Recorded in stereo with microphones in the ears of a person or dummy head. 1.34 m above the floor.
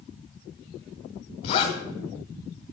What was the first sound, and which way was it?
A zipper, 35° left (ahead or behind).